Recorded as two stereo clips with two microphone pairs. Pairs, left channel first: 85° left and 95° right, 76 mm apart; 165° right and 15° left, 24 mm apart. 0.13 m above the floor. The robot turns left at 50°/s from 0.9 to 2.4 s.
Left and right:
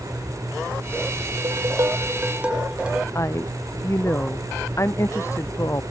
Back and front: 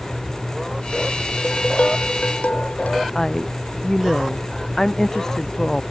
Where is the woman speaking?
135° left.